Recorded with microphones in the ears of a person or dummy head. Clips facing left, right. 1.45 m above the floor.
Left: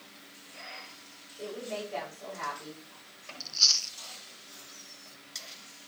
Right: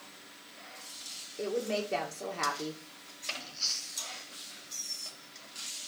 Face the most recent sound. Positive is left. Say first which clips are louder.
# left 1 dB
turn(degrees=65)  # may be behind; listen again after turning